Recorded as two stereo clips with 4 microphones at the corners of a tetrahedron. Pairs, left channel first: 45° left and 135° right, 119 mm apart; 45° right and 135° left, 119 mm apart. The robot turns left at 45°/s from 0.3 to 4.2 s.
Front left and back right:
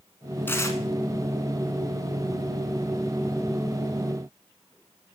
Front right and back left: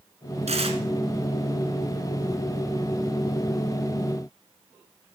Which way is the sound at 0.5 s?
115° left.